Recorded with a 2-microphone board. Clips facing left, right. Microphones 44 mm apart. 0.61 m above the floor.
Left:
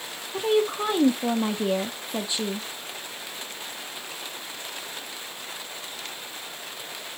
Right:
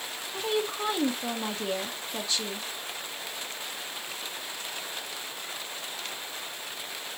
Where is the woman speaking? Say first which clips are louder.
Left 7 dB; 20° left (ahead or behind), 0.6 m.